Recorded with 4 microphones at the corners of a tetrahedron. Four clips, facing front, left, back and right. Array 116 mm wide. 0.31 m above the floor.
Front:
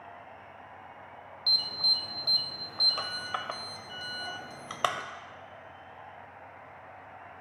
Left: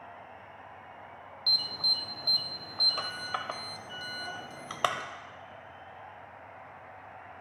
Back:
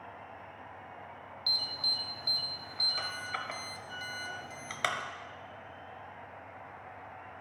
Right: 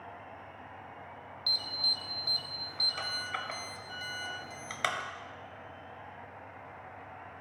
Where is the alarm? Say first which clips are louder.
Left 3 dB, front 4 dB; 45° left, 0.6 m.